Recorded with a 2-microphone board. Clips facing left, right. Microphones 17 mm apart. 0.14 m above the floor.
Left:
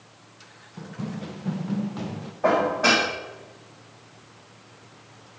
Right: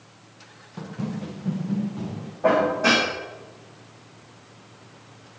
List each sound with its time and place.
0.8 s running footsteps: 20° right (ahead or behind), 0.8 m; by 2.3 s 50° left (ahead or behind), 1.7 m
2.4 s dishes clattering: 30° left (ahead or behind), 5 m